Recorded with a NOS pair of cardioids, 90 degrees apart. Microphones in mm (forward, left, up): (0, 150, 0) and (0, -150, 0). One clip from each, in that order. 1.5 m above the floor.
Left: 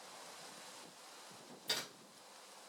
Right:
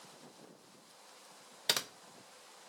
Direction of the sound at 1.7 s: 60° right.